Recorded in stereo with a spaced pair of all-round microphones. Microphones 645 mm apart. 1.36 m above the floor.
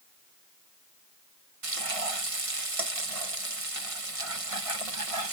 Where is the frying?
60° right (ahead or behind).